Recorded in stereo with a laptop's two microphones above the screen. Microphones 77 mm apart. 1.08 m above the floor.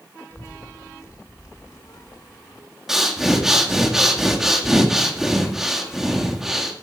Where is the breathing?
5° right (ahead or behind), 1.8 m.